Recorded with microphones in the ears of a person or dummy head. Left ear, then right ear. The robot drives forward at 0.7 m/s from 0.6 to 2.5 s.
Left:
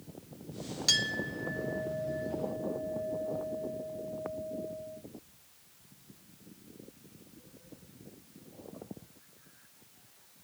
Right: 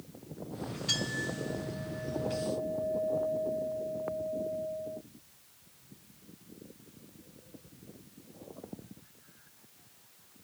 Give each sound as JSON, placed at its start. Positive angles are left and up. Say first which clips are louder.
{"t": 0.9, "sound": "a clink", "louder": "left 4 dB", "side_deg": 65, "distance_m": 1.8}